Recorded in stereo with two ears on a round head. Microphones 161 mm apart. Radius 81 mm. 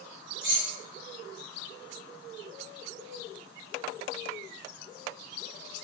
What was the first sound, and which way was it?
Keys jangling, 70° right (ahead or behind).